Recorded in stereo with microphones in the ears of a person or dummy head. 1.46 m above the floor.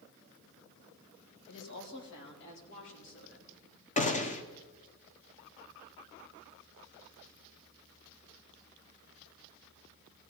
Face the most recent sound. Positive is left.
turn(degrees=35)  # may be behind; listen again after turning